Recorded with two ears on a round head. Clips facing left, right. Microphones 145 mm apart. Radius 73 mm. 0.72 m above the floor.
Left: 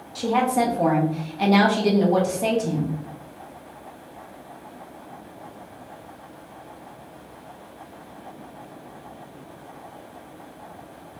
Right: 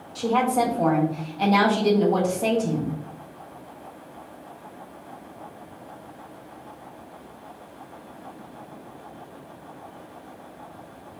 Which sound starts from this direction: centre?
A woman speaking, at 0.1 s.